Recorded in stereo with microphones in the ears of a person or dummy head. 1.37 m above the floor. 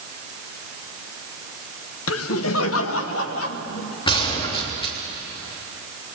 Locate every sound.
2.1 s laughter: 75° left (ahead or behind), 0.9 m; by 4.0 s 80° left, 3.5 m
4.1 s a gunshot: 30° left (ahead or behind), 3.5 m